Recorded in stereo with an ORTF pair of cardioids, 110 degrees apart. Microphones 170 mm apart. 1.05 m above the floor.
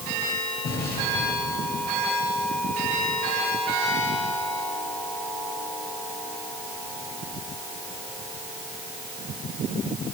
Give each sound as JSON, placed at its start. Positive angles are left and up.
{"t": 0.6, "sound": "an explosion", "azimuth_deg": 65, "distance_m": 6.5}